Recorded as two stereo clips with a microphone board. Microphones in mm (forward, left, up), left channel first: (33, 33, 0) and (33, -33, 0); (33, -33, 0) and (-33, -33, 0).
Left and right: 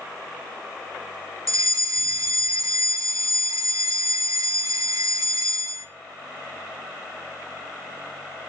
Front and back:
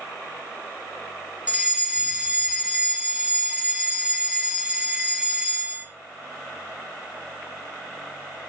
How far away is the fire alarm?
About 4.5 m.